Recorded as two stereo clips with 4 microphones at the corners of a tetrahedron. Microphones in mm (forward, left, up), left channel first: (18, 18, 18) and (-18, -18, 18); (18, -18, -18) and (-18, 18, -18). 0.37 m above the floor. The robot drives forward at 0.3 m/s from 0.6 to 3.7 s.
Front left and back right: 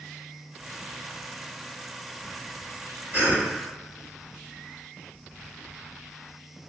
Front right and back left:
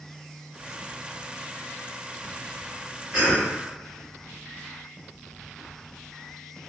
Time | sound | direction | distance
3.1 | a cough | 165° right | 1.7 m